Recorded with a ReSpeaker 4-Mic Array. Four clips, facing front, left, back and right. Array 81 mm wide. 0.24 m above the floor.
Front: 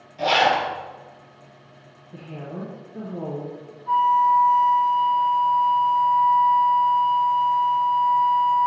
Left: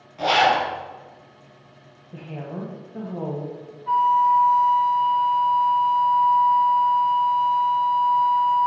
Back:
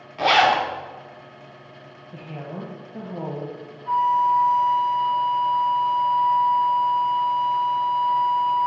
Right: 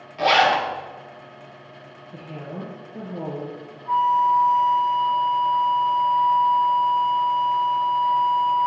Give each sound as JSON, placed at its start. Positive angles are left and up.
{"t": 0.2, "sound": "a zipper", "azimuth_deg": -155, "distance_m": 1.3}
{"t": 2.1, "sound": "a woman speaking", "azimuth_deg": 145, "distance_m": 1.1}
{"t": 3.9, "sound": "a flute", "azimuth_deg": 110, "distance_m": 1.0}